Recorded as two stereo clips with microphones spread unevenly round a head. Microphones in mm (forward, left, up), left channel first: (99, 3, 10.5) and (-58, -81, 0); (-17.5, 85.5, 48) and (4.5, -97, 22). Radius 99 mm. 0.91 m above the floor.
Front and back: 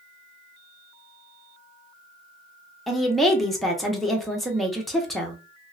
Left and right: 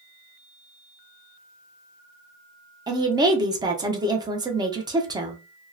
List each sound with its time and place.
2.9 s a woman speaking: 65° right, 0.7 m